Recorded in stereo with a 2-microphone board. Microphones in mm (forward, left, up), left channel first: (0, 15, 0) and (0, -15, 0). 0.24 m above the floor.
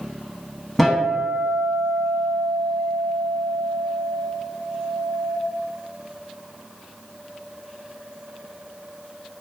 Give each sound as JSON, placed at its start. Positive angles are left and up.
{"t": 0.8, "sound": "a guitar", "side_deg": 0, "distance_m": 0.5}